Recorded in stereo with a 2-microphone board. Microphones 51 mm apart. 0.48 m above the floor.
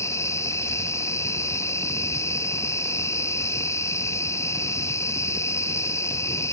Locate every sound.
0.0 s an insect: 70° left (ahead or behind)